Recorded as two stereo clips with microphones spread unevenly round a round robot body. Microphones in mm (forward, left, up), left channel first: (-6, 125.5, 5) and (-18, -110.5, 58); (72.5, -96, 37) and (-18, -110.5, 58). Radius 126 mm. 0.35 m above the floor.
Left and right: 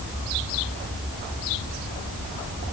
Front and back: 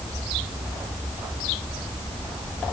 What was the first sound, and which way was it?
Only background noise.